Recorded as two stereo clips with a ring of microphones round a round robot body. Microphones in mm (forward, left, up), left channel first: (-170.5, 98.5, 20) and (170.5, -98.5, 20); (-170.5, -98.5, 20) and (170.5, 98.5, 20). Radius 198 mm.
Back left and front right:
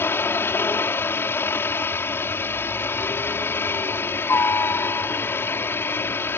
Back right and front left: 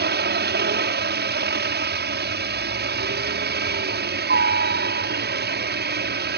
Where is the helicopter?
70° left.